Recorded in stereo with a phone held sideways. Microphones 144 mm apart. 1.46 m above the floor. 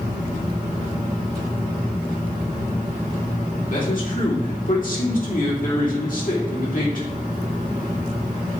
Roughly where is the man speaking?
Left.